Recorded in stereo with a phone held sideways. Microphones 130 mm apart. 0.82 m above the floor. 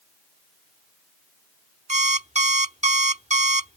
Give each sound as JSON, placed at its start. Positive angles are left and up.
{"t": 1.9, "sound": "an alarm clock", "side_deg": -60}